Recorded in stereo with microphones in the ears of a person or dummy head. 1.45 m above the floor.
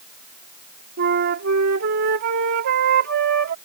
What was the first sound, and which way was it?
A flute, 60° right (ahead or behind).